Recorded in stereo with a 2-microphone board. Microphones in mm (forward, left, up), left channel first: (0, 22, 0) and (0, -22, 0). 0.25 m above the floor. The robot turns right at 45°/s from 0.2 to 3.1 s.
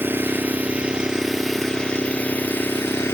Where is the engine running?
55° right, 1.3 m; by 3.1 s 75° left, 1.3 m.